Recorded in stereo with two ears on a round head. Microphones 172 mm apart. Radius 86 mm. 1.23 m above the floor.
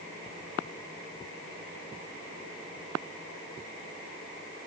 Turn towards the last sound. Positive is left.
No sound to turn to.